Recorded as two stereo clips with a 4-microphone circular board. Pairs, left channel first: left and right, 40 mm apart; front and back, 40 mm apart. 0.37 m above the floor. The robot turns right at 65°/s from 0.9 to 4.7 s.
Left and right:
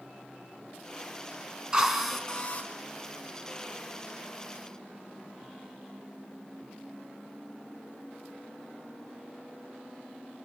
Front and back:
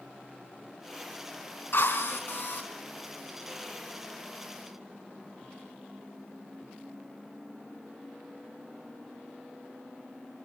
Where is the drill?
20° right, 4.5 m; by 2.7 s 40° left, 4.5 m.